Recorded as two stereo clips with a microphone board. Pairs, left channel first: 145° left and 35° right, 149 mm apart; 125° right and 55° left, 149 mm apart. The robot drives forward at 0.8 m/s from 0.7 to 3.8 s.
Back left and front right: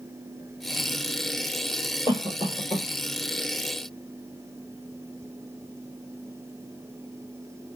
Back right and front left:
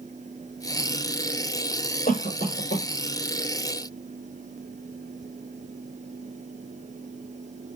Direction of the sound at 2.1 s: 150° right.